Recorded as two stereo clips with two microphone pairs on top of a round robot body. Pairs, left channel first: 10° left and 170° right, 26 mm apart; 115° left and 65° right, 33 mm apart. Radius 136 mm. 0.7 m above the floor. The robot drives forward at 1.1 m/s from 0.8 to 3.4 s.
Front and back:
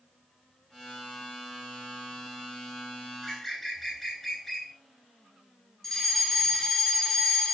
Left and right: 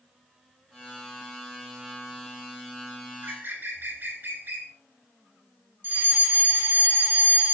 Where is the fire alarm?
85° right, 6 m.